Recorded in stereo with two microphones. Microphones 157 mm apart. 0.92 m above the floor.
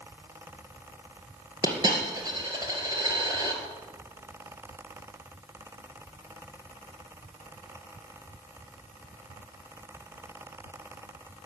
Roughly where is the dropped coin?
Right.